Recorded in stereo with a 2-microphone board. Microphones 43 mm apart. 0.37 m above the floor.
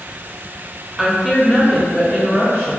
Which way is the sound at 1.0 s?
10° right (ahead or behind).